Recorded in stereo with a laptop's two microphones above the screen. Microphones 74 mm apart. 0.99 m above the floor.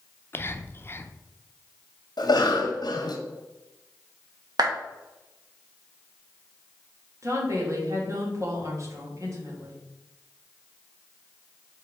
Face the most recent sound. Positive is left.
turn(degrees=-45)  # may be behind; listen again after turning